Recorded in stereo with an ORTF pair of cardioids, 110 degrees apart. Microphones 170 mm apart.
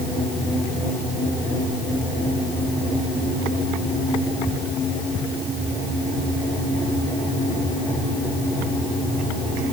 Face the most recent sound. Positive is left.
No sound to turn to.